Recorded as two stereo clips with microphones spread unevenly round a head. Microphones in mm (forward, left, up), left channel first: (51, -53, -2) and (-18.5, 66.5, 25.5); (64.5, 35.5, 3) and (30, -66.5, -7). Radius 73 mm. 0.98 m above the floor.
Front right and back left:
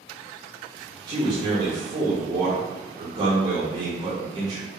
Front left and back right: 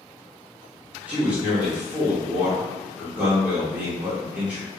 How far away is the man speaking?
About 1.0 m.